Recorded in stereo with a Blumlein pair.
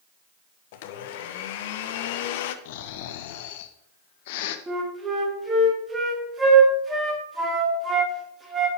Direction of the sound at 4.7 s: 15° right.